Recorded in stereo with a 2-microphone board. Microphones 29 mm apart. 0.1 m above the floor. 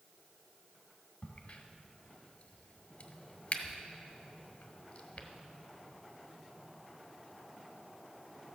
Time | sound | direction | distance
1.2 | a crack | 40° left (ahead or behind) | 1.3 m